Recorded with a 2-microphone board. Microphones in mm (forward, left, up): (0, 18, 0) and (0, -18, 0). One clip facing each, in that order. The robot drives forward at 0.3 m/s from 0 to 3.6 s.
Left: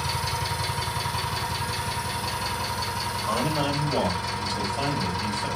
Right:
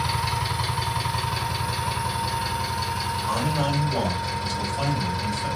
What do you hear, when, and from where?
0.0 s an engine running: 25° right (ahead or behind), 1.0 m; by 5.6 s 10° right (ahead or behind), 2 m
3.3 s a man speaking: 25° left (ahead or behind), 1.5 m